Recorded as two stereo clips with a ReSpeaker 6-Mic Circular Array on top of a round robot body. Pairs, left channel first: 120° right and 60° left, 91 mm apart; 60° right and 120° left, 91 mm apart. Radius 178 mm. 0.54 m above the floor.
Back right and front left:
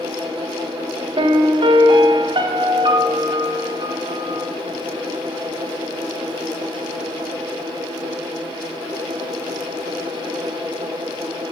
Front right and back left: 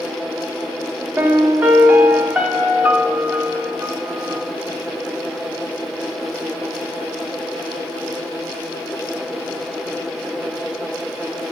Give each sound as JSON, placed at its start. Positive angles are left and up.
{"t": 1.2, "sound": "a piano", "azimuth_deg": 45, "distance_m": 1.2}